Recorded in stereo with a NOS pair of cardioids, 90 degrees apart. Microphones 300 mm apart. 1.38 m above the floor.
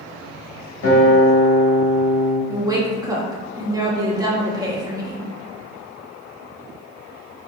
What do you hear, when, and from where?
0.8 s a guitar: 50° left, 1.8 m
2.5 s a woman speaking: 10° right, 1.0 m